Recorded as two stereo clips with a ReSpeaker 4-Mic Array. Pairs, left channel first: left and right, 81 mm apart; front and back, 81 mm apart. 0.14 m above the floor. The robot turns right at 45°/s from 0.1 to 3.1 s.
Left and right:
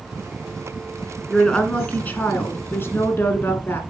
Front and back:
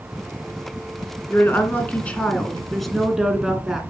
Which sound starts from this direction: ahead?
A woman speaking, at 1.3 s.